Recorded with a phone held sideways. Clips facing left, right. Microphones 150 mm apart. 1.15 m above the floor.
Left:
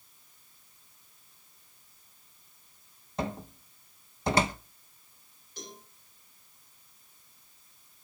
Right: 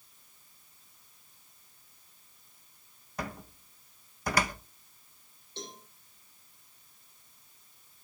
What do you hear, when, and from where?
3.2 s a cupboard door: 25° left (ahead or behind), 1.0 m
5.6 s a cowbell: 25° right (ahead or behind), 9.5 m